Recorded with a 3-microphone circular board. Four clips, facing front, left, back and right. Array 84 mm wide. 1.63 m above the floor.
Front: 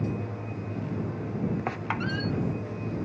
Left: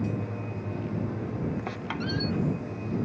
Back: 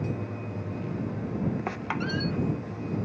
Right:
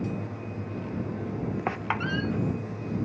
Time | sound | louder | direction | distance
1.7 | a squeak | right 3 dB, even | 80° right | ?